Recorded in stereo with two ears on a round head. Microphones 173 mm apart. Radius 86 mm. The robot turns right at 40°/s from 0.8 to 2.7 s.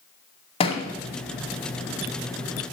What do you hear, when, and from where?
0.6 s a thud: 30° left (ahead or behind), 0.7 m